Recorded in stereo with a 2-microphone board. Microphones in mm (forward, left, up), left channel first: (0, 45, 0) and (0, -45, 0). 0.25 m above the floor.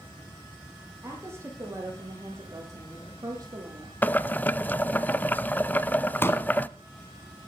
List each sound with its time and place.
1.0 s a woman speaking: 30° right (ahead or behind), 8.5 m; by 3.9 s 40° right (ahead or behind), 8.5 m
4.0 s boiling: 20° left (ahead or behind), 0.6 m
6.2 s a pop: 25° left (ahead or behind), 1.8 m